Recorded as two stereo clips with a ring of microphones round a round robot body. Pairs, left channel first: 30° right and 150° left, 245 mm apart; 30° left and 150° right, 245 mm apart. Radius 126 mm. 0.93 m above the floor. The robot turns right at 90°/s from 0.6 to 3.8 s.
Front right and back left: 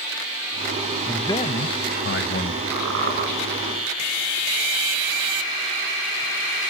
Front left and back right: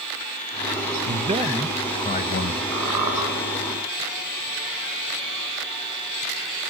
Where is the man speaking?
115° right, 1.2 m; by 2.6 s 25° left, 1.2 m.